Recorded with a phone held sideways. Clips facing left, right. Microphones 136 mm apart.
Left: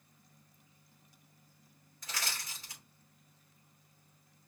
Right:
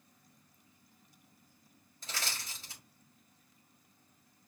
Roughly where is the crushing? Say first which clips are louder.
Even; right.